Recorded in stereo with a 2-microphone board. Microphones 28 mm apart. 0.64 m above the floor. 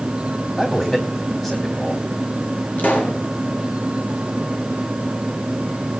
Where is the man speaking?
15° left (ahead or behind), 3 m.